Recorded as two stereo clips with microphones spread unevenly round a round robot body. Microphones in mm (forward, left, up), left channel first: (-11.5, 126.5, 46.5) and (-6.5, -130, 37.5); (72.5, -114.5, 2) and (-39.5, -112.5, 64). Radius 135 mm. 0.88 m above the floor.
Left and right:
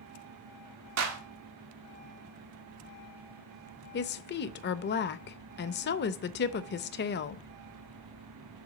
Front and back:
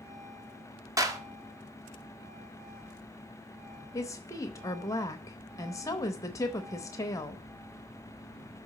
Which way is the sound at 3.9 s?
40° left.